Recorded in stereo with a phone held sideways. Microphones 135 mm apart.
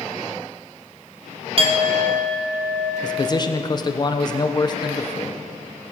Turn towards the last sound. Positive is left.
turn(degrees=30)  # may be behind; listen again after turning